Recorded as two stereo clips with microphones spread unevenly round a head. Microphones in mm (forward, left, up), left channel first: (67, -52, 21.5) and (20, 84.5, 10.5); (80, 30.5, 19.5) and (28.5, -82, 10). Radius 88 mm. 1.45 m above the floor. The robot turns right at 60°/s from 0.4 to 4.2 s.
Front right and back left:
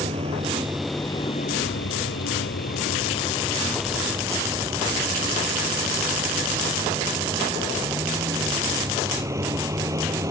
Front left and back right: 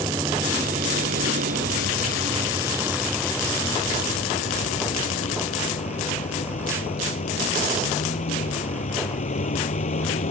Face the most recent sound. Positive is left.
turn(degrees=40)